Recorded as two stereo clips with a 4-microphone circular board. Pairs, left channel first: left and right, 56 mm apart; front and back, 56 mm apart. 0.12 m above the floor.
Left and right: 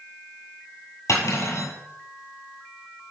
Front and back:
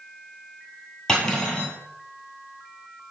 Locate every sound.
1.1 s cutlery clinking: 80° left, 2 m